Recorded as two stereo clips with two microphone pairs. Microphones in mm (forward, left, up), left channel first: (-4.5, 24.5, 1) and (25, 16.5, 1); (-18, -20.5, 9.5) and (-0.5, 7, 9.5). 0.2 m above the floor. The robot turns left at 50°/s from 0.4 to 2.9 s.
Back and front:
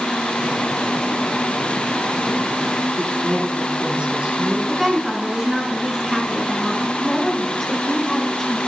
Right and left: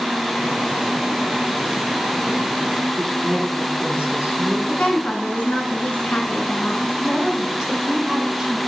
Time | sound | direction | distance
3.0 | a woman speaking | 15° left | 2.5 m
4.7 | a woman speaking | 95° right | 2.0 m
7.0 | a woman speaking | 100° left | 1.3 m